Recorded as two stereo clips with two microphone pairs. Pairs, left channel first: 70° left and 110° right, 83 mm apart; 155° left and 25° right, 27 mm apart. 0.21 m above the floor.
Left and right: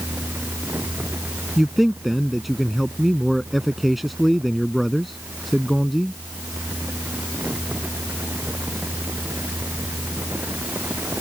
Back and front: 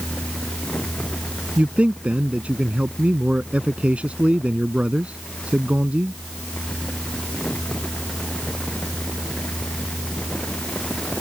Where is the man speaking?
20° right.